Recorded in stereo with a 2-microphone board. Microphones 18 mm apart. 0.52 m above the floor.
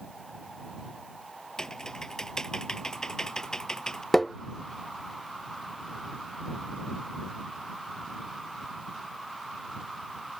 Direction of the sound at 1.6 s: 35° left (ahead or behind).